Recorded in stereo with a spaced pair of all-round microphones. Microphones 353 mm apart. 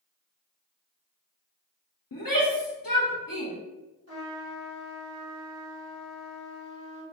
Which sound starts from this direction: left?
A shout, at 2.1 s.